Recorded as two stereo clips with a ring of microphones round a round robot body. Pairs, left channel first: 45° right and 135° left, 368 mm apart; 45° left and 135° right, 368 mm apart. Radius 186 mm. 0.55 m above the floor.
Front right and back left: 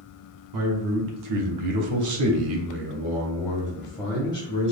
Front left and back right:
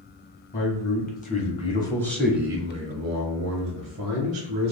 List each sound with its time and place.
0.5 s a man speaking: 105° left, 1.4 m; by 4.7 s 115° right, 1.2 m